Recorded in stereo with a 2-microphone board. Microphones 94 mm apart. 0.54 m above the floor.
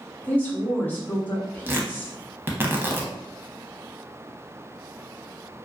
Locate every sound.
0.2 s a woman speaking: 20° left (ahead or behind), 0.9 m
1.7 s tearing paper: 25° right (ahead or behind), 0.5 m